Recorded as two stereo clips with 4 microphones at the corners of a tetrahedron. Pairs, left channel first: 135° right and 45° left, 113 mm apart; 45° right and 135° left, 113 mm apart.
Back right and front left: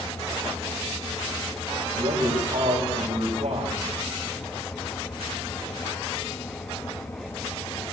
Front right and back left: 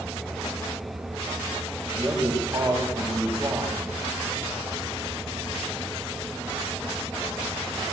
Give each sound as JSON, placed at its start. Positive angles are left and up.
{"t": 1.9, "sound": "a man speaking", "azimuth_deg": 65, "distance_m": 9.5}